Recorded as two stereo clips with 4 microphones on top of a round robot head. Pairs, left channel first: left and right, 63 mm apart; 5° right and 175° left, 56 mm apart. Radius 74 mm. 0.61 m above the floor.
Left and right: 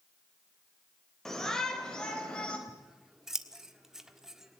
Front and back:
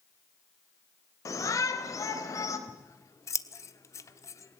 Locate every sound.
1.2 s a shout: 5° left, 3.5 m; by 2.6 s 15° left, 4 m
2.7 s scissors: 10° right, 1.4 m